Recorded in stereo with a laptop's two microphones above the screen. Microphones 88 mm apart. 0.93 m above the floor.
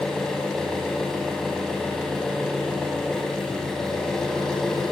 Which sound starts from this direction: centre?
An engine running, at 0.0 s.